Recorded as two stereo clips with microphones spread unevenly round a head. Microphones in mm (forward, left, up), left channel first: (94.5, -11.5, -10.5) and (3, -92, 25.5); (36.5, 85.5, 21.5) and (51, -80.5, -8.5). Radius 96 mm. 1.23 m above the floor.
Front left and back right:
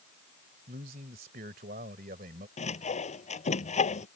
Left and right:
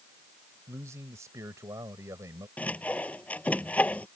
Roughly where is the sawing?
Ahead.